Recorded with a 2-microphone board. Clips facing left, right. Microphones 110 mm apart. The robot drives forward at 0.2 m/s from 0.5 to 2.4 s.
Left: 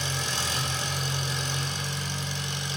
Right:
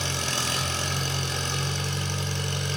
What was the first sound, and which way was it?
An engine running, 70° right (ahead or behind).